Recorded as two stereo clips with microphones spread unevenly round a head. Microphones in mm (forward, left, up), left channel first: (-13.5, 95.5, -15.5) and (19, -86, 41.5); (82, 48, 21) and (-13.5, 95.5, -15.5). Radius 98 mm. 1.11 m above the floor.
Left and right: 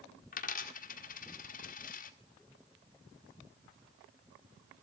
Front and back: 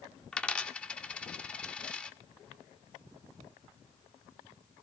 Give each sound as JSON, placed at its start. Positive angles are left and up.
{"t": 0.3, "sound": "a dropped coin", "azimuth_deg": 45, "distance_m": 1.3}